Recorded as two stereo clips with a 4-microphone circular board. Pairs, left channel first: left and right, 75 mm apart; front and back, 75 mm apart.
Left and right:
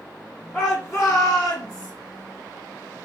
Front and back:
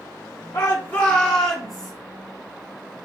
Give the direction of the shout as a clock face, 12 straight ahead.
11 o'clock.